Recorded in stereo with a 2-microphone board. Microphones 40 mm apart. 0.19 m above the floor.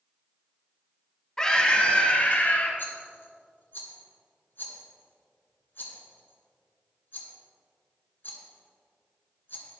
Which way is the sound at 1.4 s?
15° left (ahead or behind).